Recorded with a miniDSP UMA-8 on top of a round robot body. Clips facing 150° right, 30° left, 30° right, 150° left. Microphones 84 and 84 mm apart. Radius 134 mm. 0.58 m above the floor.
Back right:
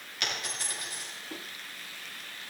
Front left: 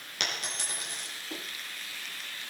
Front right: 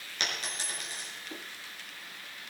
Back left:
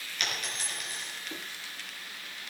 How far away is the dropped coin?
About 4 m.